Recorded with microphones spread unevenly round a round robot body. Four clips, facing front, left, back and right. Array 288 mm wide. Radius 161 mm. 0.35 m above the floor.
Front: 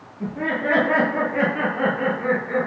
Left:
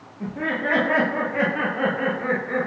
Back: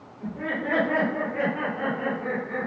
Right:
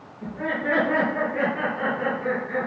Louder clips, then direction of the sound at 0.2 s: Left 2 dB, front 5 dB; 50° left.